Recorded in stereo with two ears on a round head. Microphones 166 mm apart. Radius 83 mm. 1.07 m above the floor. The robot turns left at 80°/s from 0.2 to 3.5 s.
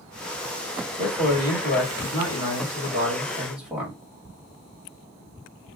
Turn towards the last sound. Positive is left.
turn(degrees=-5)